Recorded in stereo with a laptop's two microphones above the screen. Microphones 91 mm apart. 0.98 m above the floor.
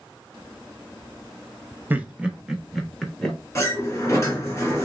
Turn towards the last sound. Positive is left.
turn(degrees=30)  # may be behind; listen again after turning